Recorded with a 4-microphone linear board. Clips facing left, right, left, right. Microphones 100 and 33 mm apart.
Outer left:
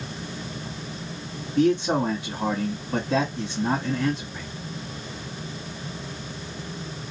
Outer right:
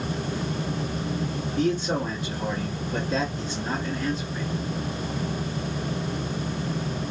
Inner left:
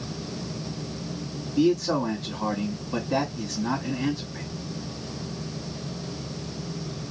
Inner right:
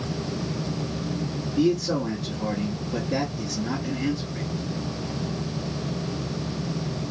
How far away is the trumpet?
I don't hear a trumpet.